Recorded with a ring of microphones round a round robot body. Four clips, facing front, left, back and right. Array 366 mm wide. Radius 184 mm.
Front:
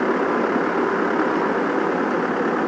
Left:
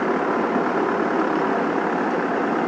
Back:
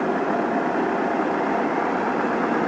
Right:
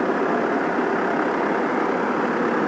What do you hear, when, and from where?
Only background noise.